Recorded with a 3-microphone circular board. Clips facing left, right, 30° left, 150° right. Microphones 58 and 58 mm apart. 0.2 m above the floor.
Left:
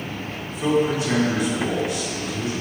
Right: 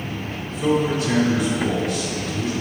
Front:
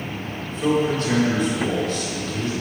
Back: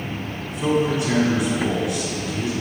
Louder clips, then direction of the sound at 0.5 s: Even, even; 150° left.